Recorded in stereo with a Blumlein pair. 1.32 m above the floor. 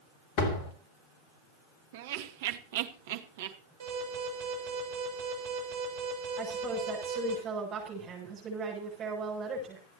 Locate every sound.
0.4 s a door slam: 45° left, 3 m
1.9 s laughter: 55° right, 1.7 m
3.8 s an alarm: 60° right, 6 m
6.4 s a woman speaking: 25° right, 7.5 m